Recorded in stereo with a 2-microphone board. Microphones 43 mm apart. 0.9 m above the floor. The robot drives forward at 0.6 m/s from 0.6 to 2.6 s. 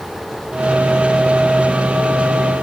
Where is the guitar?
No guitar in this recording.